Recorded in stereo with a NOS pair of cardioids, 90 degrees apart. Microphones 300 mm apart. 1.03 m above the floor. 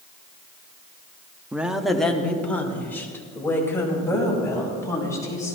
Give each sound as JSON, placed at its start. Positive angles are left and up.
{"t": 1.5, "sound": "a woman speaking", "azimuth_deg": -5, "distance_m": 1.2}